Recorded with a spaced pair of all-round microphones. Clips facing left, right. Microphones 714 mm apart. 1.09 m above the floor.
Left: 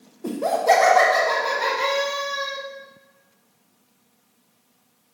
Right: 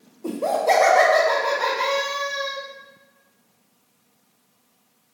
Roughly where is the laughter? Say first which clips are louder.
Left 1 dB; left.